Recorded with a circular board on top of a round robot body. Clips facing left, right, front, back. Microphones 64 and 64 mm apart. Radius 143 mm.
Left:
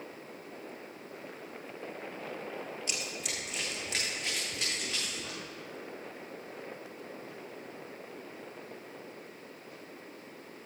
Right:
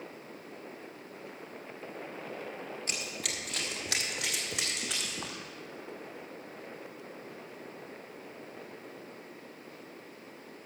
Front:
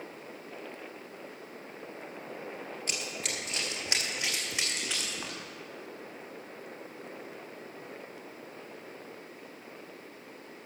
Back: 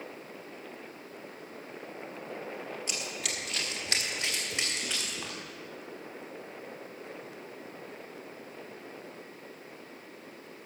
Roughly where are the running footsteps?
Ahead right.